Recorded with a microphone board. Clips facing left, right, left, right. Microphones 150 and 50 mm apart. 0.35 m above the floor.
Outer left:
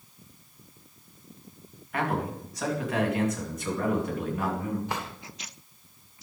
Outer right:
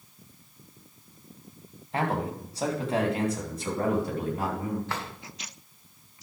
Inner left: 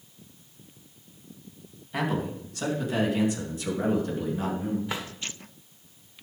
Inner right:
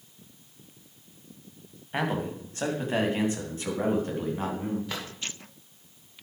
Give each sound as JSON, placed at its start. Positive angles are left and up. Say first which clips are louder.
{"t": 1.9, "sound": "a man speaking", "louder": "outer right 1 dB, even", "side_deg": -25, "distance_m": 2.5}
{"t": 4.9, "sound": "a drawer", "louder": "outer left 1 dB, inner left 2 dB", "side_deg": 15, "distance_m": 1.6}